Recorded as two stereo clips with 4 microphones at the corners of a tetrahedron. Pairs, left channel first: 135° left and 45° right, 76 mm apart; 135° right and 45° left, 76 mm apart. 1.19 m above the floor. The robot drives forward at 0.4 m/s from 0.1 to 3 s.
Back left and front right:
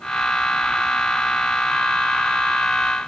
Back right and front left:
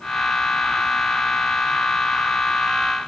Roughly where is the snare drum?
No snare drum in this recording.